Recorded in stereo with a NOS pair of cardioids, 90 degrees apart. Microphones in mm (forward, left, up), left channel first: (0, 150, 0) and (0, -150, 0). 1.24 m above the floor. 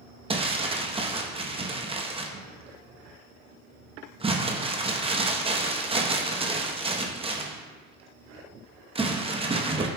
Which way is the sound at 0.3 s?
20° right.